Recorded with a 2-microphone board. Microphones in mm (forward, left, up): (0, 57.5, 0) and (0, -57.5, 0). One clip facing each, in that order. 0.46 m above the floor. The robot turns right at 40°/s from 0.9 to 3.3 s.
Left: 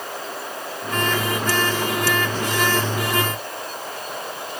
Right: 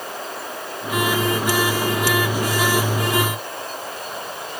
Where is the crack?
I don't hear a crack.